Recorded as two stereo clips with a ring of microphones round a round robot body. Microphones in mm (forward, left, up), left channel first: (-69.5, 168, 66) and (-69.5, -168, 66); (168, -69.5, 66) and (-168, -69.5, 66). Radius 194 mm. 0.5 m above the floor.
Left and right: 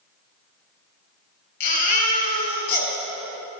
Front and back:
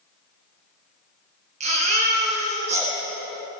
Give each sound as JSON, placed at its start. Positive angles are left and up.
{"t": 1.6, "sound": "a baby crying", "azimuth_deg": 105, "distance_m": 5.0}